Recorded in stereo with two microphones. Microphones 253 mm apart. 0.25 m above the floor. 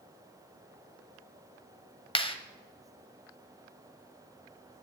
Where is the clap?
20° left (ahead or behind), 1.1 m.